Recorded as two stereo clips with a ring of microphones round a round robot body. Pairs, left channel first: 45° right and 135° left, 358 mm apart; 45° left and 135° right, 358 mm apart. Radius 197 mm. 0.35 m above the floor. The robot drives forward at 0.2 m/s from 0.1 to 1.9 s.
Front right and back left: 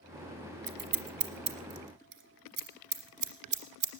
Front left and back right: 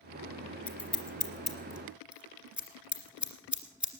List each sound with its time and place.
0.7 s scissors: 130° left, 1.3 m; by 3.9 s 140° left, 1.4 m